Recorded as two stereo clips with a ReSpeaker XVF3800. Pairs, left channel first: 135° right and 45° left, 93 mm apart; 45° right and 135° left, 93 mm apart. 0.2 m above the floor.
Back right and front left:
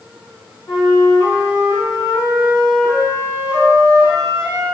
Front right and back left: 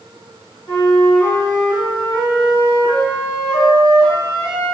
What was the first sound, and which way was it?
A flute, 90° right.